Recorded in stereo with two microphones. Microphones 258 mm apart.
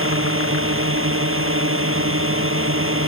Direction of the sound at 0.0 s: 55° right (ahead or behind).